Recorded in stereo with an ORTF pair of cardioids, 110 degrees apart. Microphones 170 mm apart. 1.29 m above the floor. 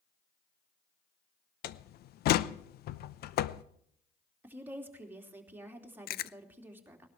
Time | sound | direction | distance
1.6 | a door slam | 60° left | 0.8 m
4.4 | a woman speaking | 10° right | 3 m
6.1 | chewing | 60° left | 0.5 m